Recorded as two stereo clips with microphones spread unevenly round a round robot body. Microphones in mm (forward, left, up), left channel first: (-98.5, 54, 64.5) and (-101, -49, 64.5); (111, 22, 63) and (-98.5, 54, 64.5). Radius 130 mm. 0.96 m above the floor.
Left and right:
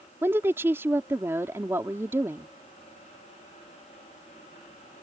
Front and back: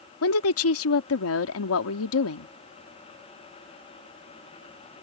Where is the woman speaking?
15° right.